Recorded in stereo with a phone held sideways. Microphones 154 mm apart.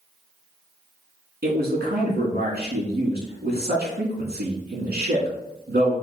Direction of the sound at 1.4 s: 80° right.